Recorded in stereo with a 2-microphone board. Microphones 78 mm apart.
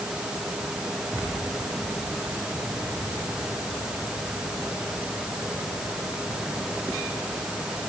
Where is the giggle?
No giggle in this recording.